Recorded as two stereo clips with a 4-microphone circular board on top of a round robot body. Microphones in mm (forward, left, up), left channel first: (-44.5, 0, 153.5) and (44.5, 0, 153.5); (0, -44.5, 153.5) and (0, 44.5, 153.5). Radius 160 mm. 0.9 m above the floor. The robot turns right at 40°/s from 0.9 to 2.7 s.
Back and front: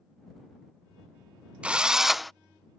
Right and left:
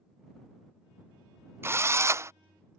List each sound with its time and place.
1.6 s a drill: 65° left; by 2.3 s 90° left